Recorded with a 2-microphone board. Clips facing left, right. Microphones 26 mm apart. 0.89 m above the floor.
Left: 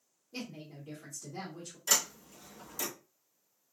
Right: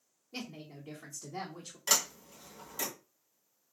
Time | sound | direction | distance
0.3 | a woman speaking | 45° right (ahead or behind) | 1.0 m
1.9 | a sliding door | 40° right (ahead or behind) | 1.8 m